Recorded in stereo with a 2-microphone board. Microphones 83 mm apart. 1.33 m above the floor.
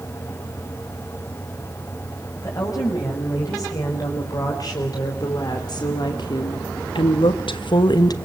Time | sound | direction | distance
2.4 | a woman speaking | 45° left (ahead or behind) | 7 m